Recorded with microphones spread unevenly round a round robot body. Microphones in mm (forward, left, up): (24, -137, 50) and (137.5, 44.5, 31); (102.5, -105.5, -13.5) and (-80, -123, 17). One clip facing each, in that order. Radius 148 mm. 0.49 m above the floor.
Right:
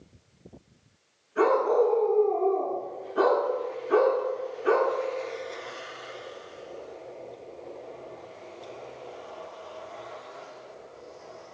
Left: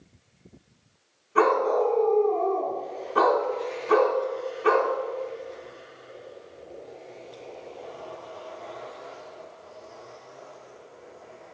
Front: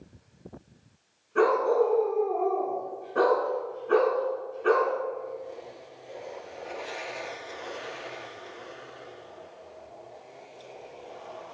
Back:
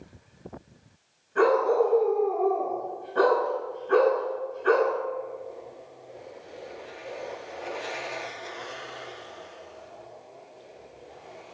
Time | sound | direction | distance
1.4 | a dog barking | 75° left | 1.7 m